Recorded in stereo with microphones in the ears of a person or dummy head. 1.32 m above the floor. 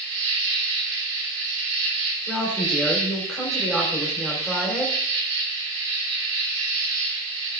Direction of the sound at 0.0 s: 80° right.